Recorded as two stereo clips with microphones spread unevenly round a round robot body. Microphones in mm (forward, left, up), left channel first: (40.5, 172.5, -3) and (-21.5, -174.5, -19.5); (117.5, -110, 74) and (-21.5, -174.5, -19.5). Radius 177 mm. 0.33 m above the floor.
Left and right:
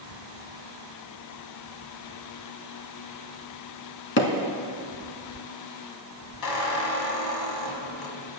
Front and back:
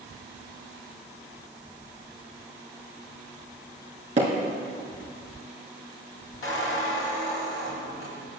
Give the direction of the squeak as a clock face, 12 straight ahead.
10 o'clock.